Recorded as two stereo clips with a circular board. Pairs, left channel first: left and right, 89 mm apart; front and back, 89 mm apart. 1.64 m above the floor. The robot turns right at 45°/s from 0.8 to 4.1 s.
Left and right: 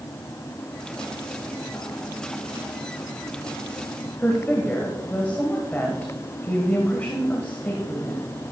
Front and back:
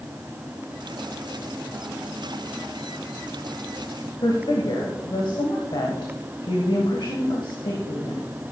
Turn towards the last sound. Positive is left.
turn(degrees=20)